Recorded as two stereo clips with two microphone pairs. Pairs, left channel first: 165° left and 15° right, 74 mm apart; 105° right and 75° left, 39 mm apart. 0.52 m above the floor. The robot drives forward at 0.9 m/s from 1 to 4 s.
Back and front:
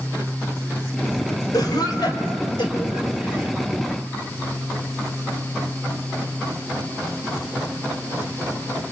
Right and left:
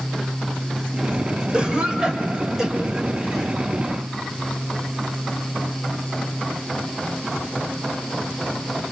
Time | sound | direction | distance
1.5 | a cough | 135° left | 2.5 m